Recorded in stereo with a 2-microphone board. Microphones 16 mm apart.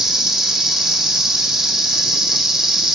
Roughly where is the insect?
Right.